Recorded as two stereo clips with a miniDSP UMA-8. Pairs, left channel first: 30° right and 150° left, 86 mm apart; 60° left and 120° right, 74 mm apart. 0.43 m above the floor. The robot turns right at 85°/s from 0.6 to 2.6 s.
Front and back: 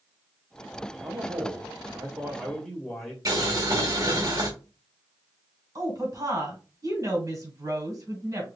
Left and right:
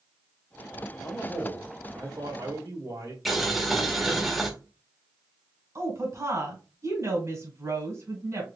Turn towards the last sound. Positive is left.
turn(degrees=-165)